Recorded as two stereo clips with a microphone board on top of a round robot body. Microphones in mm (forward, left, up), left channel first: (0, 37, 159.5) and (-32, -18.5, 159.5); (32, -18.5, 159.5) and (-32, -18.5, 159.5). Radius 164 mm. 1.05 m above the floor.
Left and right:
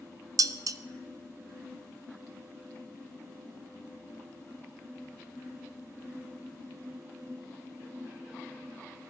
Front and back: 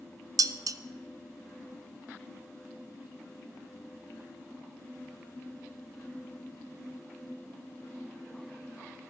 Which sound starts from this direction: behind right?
Dishes clattering, at 0.4 s.